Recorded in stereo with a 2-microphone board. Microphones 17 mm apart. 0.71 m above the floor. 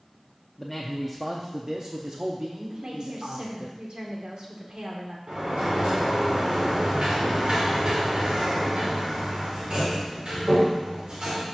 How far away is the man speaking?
About 0.9 m.